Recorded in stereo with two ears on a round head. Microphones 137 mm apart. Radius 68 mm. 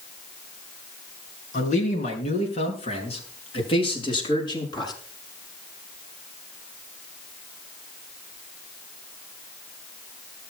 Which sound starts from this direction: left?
A man speaking, at 1.5 s.